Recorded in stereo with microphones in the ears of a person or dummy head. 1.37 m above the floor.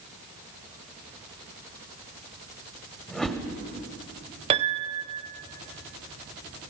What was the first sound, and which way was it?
A whoosh, 5° left (ahead or behind).